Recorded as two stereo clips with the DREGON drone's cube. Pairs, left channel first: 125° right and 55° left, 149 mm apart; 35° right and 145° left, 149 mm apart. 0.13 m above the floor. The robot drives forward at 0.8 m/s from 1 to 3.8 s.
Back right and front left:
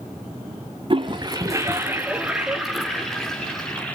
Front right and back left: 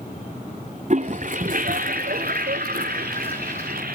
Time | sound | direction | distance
0.9 | a toilet flushing | 110° left | 1.5 m